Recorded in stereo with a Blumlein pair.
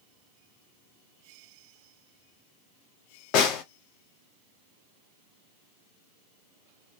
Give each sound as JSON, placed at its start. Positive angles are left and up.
{"t": 3.3, "sound": "a snare drum", "azimuth_deg": 35, "distance_m": 0.7}